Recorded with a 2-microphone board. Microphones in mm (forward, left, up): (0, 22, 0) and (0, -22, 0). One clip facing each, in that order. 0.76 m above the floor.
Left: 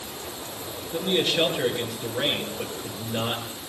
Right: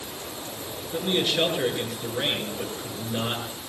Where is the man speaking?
5° right (ahead or behind), 9.5 m.